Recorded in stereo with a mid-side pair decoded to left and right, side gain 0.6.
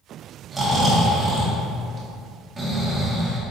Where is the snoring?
20° right, 2.0 m.